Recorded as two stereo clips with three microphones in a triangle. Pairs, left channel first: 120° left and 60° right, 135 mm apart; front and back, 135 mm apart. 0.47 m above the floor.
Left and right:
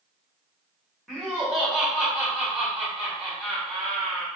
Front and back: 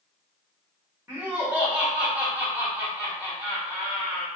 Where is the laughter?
145° right, 1.1 m.